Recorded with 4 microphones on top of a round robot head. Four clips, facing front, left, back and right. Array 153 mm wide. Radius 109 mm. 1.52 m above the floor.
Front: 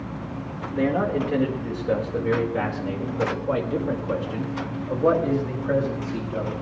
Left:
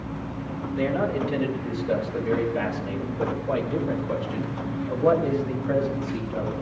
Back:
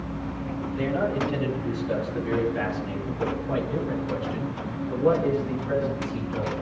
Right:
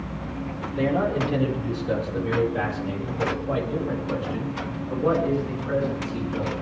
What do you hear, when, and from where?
0.8 s a man speaking: 20° right, 5 m; by 6.5 s 5° left, 7 m